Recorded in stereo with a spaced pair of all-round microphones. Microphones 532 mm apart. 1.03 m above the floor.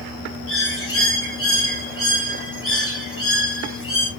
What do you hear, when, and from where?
0.5 s a bird: 25° left (ahead or behind), 1.4 m